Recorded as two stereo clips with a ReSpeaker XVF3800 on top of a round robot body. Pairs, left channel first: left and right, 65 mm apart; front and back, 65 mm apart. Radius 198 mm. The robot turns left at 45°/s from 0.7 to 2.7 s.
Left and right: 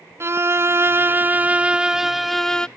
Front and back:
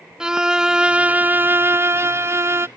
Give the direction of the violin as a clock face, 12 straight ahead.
4 o'clock.